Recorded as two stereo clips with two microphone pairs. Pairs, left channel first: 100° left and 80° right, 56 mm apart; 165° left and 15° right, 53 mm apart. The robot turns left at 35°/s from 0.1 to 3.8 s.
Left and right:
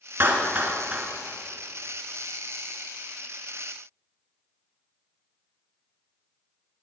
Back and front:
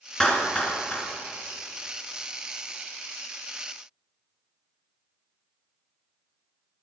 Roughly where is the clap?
Behind right.